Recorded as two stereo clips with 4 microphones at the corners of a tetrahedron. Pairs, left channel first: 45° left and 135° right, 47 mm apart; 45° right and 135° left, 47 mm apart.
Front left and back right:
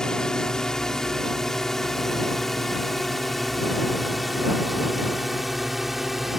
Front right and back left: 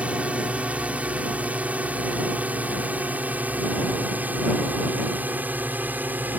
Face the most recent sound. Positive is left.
turn(degrees=140)